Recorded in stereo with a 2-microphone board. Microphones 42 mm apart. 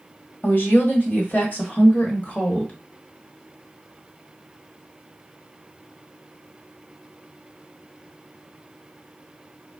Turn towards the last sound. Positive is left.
turn(degrees=30)  # may be behind; listen again after turning